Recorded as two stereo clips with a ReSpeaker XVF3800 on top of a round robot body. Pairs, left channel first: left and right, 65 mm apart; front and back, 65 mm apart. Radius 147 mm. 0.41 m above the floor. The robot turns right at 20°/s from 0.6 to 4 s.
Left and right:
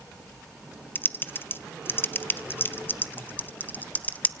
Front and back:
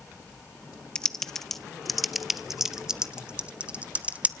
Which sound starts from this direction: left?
Typing on a keyboard, at 0.9 s.